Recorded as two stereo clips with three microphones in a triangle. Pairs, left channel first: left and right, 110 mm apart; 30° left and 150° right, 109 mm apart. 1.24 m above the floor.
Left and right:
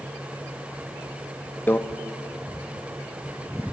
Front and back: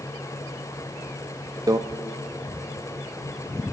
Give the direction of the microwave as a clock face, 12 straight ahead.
7 o'clock.